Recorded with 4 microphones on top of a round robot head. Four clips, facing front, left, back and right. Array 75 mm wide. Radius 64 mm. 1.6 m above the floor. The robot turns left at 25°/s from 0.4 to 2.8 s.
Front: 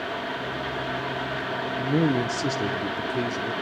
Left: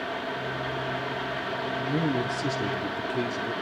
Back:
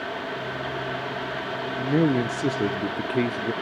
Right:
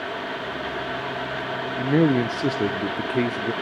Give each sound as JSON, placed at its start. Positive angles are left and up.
{"t": 1.8, "sound": "a man speaking", "azimuth_deg": -105, "distance_m": 0.5}